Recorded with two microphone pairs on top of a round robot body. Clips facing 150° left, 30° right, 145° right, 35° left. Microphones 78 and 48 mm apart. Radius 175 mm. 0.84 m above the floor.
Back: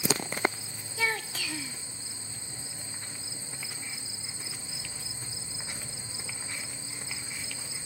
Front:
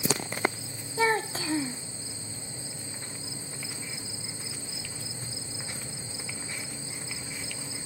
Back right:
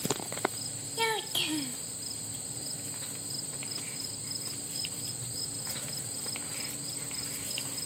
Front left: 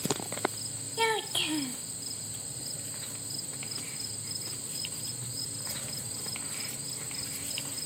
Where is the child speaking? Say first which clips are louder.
Front 6 dB, front left 2 dB; 65° right.